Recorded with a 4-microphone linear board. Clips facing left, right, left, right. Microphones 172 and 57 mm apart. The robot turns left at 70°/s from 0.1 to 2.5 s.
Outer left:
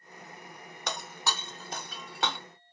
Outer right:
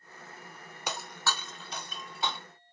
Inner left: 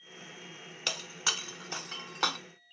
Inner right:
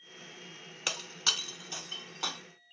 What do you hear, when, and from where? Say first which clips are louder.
0.9 s breaking glass: even, even; 10° right (ahead or behind), 0.7 m; by 2.4 s 80° left, 0.7 m